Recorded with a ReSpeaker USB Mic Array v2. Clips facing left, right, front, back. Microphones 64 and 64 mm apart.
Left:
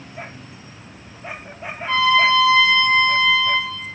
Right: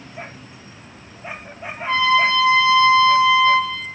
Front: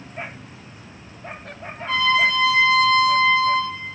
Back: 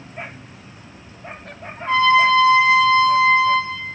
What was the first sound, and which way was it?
A trumpet, 155° right.